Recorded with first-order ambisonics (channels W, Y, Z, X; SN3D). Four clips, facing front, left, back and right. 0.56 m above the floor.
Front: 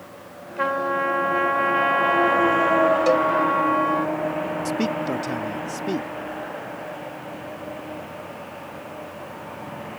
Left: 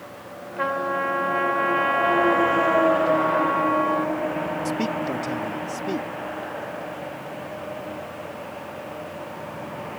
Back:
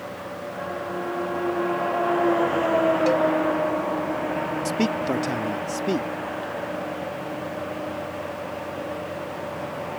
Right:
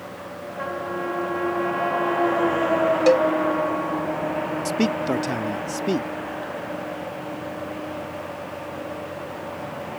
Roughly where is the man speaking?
Behind right.